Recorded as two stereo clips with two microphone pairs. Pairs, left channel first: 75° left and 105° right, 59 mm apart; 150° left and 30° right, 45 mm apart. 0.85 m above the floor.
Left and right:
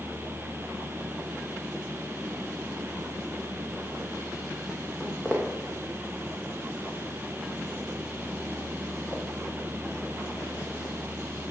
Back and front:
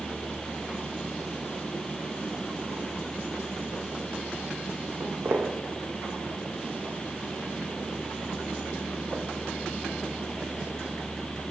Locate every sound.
5.0 s footsteps: 5° right, 2.5 m; by 10.9 s 45° left, 4.5 m